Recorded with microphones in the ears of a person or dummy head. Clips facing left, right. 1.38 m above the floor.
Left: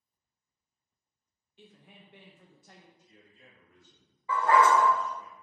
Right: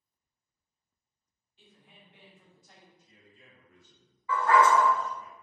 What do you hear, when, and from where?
1.6 s a woman speaking: 50° left (ahead or behind), 0.6 m
3.0 s a man speaking: 75° right (ahead or behind), 1.7 m
4.3 s a dog barking: 25° left (ahead or behind), 0.9 m